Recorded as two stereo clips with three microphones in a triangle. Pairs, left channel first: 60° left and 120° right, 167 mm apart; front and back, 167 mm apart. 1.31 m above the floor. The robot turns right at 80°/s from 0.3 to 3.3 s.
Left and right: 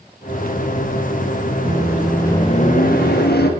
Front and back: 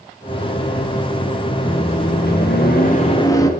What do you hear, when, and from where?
1.6 s a microwave: 60° right, 1.3 m; by 3.5 s 70° left, 1.3 m